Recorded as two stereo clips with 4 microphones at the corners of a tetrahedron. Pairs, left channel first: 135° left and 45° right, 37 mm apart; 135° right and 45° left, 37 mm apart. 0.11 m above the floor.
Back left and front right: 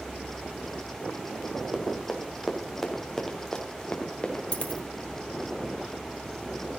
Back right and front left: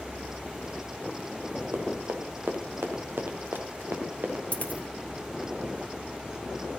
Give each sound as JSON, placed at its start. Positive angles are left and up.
{"t": 1.7, "sound": "running footsteps", "azimuth_deg": 30, "distance_m": 2.0}
{"t": 4.5, "sound": "a dropped coin", "azimuth_deg": -175, "distance_m": 1.4}